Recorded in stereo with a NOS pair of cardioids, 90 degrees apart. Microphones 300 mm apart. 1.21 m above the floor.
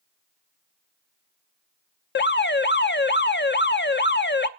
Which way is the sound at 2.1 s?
35° left.